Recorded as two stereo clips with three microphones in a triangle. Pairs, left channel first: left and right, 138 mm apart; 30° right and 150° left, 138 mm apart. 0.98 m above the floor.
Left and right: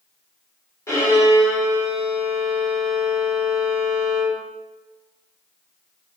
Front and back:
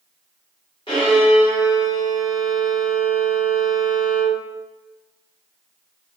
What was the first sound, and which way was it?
A violin, 20° left.